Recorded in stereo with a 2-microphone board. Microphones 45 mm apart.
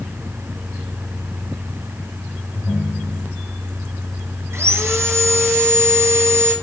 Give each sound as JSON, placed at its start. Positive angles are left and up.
{"t": 2.5, "sound": "a ringtone", "side_deg": 45, "distance_m": 8.0}
{"t": 4.5, "sound": "sawing", "side_deg": -80, "distance_m": 3.5}